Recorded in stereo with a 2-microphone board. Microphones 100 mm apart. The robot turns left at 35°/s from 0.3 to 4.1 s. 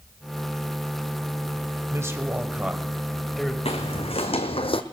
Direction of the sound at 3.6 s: 75° left (ahead or behind).